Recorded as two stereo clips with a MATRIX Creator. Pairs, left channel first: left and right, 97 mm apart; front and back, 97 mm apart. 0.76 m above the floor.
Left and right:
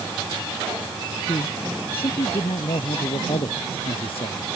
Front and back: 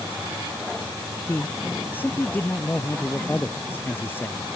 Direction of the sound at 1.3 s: 70° left.